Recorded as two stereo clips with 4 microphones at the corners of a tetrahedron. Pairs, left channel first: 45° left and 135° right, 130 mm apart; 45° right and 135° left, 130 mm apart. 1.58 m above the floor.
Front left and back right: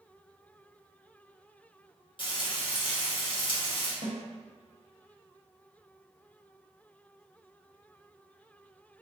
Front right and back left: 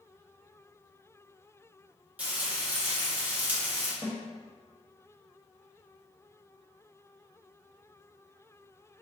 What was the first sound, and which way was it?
Frying, 60° left.